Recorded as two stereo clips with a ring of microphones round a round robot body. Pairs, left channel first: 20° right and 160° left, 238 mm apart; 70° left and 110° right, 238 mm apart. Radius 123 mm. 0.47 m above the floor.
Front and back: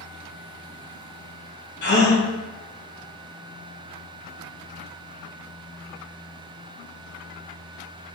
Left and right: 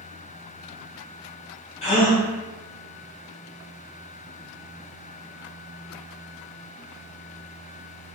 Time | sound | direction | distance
1.8 | a gasp | 10° left | 1.4 m